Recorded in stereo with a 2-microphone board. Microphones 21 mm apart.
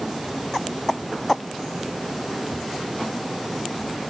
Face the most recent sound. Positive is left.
No sound to turn to.